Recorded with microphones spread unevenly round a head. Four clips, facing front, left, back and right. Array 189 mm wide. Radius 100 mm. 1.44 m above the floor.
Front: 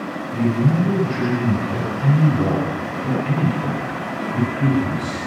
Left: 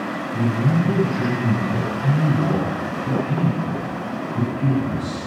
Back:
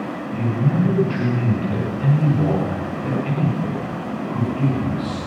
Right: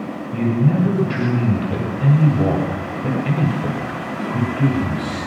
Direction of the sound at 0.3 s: 90° right.